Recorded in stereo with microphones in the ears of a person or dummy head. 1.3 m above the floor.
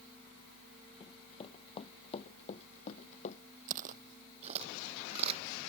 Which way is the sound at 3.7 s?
45° right (ahead or behind).